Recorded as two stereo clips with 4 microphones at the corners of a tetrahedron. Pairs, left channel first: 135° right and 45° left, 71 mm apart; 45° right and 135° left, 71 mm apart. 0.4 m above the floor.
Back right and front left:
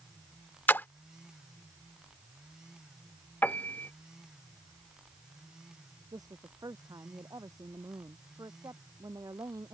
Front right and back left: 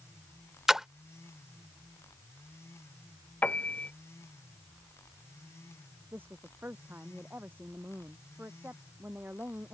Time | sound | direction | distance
0.7 | a splash | 150° right | ?
3.4 | a piano | 90° right | ?
6.1 | a woman speaking | 75° left | ?